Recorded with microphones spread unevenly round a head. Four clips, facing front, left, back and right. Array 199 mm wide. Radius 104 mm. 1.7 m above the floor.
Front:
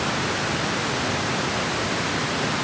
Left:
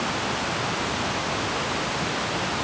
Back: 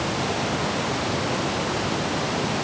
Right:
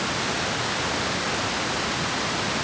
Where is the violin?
I don't hear a violin.